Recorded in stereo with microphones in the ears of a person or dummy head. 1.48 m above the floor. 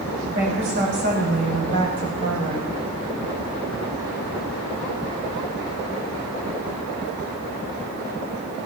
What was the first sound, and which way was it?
A woman speaking, 50° right (ahead or behind).